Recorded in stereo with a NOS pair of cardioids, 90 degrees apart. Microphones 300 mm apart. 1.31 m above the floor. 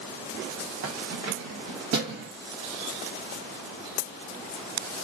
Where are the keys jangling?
55° right, 1.0 m; by 2.3 s 65° right, 1.9 m.